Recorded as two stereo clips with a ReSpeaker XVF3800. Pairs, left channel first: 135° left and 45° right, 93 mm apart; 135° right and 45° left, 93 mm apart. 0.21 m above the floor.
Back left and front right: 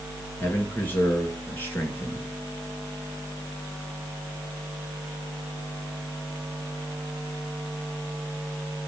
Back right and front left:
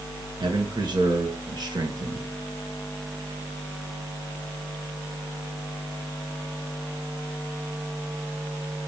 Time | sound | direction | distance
0.4 | a man speaking | 70° left | 3 m